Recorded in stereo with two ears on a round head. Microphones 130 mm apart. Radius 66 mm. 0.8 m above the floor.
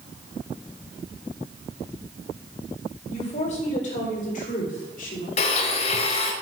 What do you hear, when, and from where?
3.1 s a woman speaking: 50° left (ahead or behind), 3.5 m; by 5.3 s 65° left (ahead or behind), 2 m
5.4 s a blender: 40° left (ahead or behind), 1.0 m